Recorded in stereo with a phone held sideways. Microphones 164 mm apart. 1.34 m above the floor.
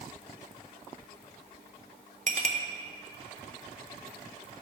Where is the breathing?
No breathing in this recording.